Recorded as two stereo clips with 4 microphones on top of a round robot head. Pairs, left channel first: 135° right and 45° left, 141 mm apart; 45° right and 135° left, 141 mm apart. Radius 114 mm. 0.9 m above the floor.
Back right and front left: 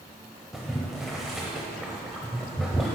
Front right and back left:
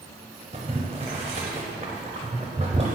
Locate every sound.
0.5 s boiling: 130° left, 0.7 m